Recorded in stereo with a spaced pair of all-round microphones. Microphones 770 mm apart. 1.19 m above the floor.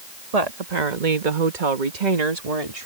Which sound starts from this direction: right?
A woman speaking, at 0.3 s.